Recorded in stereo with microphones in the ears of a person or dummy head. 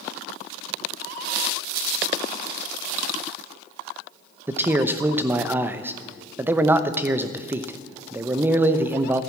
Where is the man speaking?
10° right (ahead or behind), 0.8 m.